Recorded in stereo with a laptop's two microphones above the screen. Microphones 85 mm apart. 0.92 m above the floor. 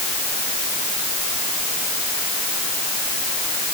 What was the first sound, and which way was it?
Only background noise.